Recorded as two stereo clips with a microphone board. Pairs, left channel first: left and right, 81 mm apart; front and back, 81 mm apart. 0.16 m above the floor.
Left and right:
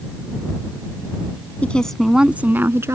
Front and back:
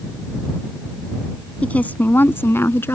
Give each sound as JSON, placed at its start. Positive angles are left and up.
{"t": 1.6, "sound": "a woman speaking", "azimuth_deg": 50}